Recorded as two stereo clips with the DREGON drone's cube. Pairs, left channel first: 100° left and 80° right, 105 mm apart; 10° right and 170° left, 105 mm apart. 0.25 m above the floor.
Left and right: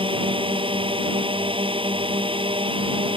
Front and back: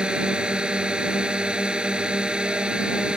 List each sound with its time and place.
0.0 s a drone: 110° right